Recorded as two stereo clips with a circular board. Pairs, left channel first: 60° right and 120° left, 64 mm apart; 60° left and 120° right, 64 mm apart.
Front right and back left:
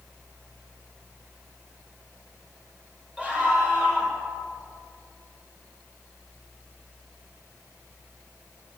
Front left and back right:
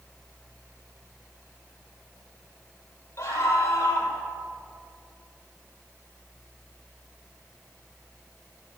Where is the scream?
50° left, 3.5 m.